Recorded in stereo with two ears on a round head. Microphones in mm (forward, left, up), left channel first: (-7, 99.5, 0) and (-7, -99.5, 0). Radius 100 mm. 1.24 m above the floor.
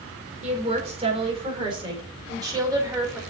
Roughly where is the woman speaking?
Right.